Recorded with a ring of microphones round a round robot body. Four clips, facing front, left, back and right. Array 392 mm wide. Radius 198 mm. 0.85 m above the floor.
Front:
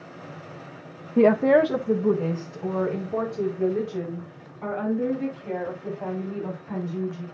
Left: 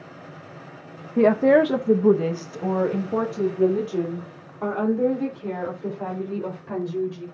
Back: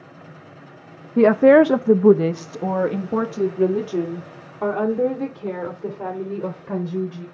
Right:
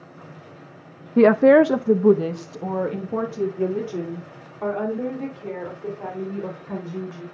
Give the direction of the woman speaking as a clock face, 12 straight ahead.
4 o'clock.